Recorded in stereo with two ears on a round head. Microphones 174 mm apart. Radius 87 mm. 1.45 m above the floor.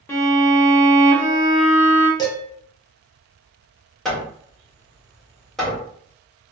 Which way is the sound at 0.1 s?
15° left (ahead or behind).